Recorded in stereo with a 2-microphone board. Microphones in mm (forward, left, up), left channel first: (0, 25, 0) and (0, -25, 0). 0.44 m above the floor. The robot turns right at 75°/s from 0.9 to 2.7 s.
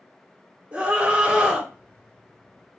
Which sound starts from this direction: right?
A scream, at 0.7 s.